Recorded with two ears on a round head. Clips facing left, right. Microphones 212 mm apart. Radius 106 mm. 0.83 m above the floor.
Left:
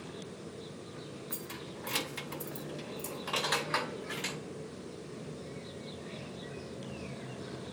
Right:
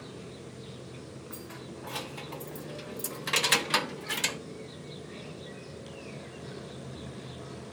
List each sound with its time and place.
1.3 s keys jangling: 50° left (ahead or behind), 1.1 m; by 4.4 s 60° right (ahead or behind), 1.2 m